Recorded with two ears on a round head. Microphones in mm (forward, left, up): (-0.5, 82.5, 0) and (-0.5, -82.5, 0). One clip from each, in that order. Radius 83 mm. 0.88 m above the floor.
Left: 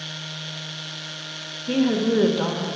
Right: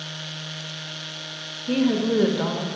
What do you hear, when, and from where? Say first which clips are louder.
1.7 s a woman speaking: left 1 dB; 10° left (ahead or behind), 1.1 m